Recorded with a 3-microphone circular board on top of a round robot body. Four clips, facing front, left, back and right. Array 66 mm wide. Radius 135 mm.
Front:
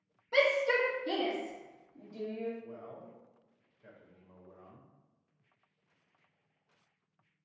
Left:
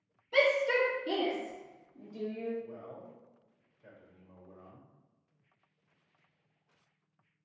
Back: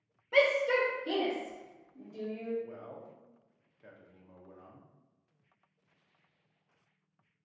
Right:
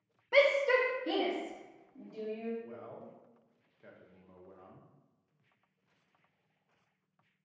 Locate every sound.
0.3 s a shout: 95° right, 0.9 m
2.6 s a man speaking: 125° right, 1.2 m